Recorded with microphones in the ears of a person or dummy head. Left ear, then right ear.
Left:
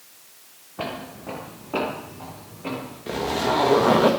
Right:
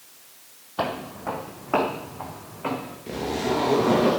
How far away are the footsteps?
About 2.5 m.